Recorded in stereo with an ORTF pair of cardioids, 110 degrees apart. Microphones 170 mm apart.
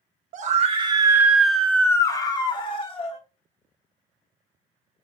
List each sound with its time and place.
0.3 s a scream: 55° right, 0.7 m; by 3.2 s 35° left, 1.3 m